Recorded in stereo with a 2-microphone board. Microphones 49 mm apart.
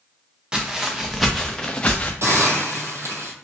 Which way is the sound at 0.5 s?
20° right (ahead or behind).